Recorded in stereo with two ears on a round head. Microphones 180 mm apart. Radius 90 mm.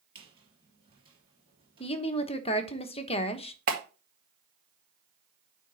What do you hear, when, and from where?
0.1 s a squeak: 25° right (ahead or behind), 3.5 m
1.8 s a woman speaking: 30° left (ahead or behind), 1.0 m
3.7 s a clap: 45° right (ahead or behind), 2 m